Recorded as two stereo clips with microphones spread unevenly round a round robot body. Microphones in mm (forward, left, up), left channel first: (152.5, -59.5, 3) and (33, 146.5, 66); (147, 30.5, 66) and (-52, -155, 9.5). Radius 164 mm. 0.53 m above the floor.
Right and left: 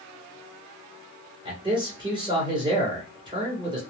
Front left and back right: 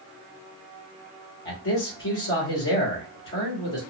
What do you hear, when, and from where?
1.4 s a man speaking: 40° left, 2.5 m